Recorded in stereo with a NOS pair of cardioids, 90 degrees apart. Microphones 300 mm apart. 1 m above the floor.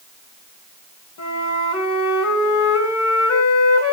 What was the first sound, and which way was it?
A flute, 70° left.